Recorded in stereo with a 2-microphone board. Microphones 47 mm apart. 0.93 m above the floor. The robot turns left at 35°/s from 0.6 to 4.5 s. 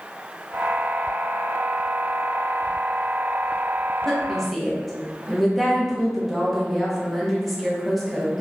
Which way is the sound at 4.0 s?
5° left (ahead or behind).